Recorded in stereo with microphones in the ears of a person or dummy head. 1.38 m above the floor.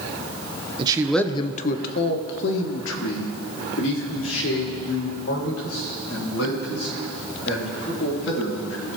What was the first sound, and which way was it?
A man speaking, 30° right (ahead or behind).